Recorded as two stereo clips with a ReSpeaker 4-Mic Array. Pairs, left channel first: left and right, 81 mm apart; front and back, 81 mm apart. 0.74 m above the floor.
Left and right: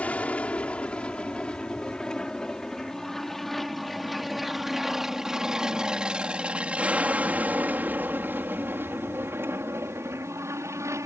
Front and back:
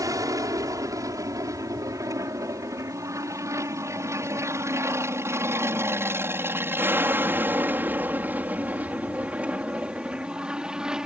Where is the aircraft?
155° left; by 11.1 s 105° right.